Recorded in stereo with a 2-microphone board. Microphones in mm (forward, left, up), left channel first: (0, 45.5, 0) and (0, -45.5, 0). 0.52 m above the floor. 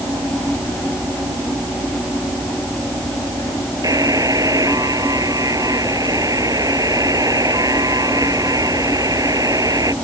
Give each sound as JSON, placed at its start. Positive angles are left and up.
{"t": 3.8, "sound": "a buzzer", "side_deg": -40}